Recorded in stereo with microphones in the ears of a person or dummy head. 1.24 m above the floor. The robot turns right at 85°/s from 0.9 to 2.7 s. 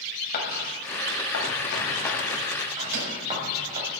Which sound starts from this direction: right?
A microwave, at 2.8 s.